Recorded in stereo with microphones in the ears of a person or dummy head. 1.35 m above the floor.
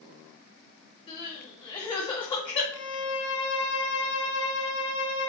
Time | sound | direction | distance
1.1 | crying | 25° left (ahead or behind) | 2.5 m
2.7 | a violin | 75° left (ahead or behind) | 4.5 m